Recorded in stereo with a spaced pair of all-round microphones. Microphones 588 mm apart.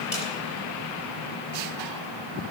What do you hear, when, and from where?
0.1 s a snare drum: 80° left, 4.5 m